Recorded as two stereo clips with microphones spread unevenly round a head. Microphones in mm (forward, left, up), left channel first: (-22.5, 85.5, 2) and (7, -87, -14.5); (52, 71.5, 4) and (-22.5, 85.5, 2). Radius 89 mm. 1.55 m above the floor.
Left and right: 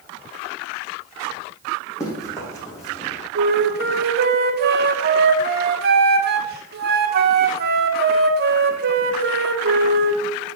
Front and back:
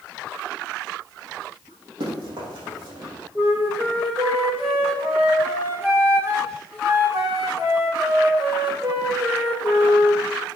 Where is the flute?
115° right, 1.3 m.